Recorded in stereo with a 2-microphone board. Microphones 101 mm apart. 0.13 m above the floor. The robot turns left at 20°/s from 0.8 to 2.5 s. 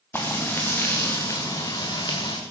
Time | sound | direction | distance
0.1 | frying | 155° left | 4 m